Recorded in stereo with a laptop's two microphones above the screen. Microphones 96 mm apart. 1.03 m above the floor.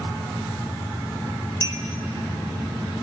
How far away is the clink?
About 0.6 m.